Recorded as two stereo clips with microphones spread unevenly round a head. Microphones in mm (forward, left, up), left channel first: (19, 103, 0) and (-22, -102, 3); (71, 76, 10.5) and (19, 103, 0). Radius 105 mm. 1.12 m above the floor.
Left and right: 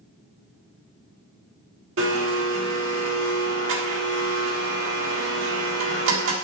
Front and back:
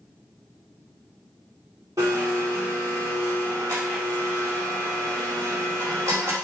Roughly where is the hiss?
I don't hear a hiss.